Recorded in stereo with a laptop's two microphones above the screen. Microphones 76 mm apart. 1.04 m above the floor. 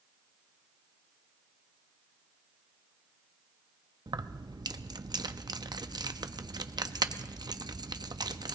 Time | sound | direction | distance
4.1 | keys jangling | 65° right (ahead or behind) | 0.6 m